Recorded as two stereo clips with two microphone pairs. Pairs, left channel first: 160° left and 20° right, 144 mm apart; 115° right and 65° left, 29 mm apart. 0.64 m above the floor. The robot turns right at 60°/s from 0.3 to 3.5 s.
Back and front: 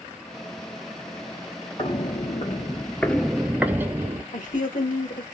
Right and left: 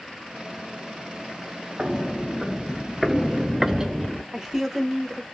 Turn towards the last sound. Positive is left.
turn(degrees=145)